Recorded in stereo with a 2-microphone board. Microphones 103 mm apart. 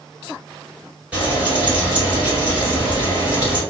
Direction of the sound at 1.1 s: 15° right (ahead or behind).